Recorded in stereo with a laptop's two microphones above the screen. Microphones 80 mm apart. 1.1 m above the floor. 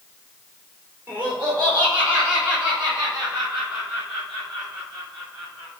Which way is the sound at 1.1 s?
25° right (ahead or behind).